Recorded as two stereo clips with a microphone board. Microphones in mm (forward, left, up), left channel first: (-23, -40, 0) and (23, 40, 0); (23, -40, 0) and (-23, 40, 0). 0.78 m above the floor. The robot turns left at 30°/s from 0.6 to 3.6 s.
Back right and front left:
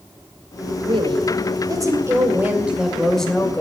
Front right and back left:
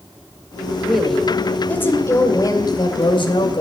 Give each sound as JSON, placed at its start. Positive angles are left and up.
{"t": 0.8, "sound": "a woman speaking", "azimuth_deg": 35, "distance_m": 2.5}